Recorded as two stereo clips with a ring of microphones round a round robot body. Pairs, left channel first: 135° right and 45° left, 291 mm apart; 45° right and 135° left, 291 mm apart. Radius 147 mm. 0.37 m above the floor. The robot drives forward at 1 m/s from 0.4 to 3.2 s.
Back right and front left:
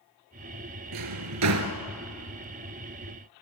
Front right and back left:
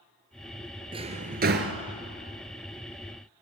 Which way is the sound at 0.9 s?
60° left.